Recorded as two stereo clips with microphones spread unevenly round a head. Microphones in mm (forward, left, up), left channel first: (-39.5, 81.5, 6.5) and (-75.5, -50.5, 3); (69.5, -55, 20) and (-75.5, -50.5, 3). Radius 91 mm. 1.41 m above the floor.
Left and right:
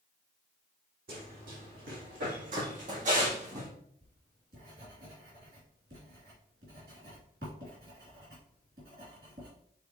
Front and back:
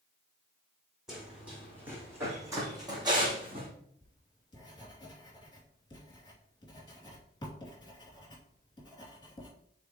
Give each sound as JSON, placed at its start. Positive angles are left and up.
{"t": 1.1, "sound": "running footsteps", "azimuth_deg": -95, "distance_m": 3.5}
{"t": 4.0, "sound": "writing", "azimuth_deg": -65, "distance_m": 3.0}